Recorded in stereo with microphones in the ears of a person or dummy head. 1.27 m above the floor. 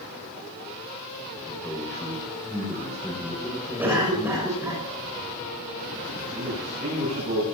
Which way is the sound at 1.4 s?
20° left (ahead or behind).